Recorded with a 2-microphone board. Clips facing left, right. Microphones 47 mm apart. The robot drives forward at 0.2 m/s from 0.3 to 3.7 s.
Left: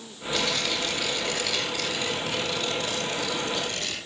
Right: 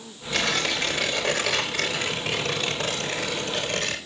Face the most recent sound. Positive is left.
turn(degrees=-70)  # may be behind; listen again after turning